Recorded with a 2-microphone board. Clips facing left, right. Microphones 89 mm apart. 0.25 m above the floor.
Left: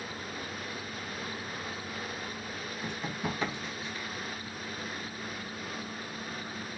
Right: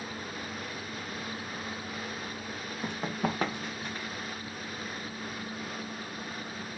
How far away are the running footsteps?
About 3.5 m.